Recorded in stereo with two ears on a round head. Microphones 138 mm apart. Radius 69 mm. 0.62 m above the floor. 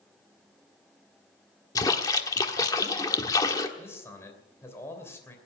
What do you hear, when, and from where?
1.8 s a splash: 25° left (ahead or behind), 1.3 m
3.8 s a man speaking: 15° left (ahead or behind), 3 m